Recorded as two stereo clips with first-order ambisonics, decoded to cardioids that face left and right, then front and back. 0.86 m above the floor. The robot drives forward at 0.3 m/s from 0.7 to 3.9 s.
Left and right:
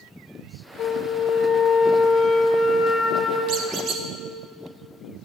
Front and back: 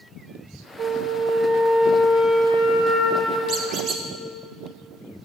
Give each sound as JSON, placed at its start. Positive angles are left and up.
{"t": 0.8, "sound": "a flute", "azimuth_deg": 125, "distance_m": 0.9}
{"t": 3.5, "sound": "a squeak", "azimuth_deg": -125, "distance_m": 0.7}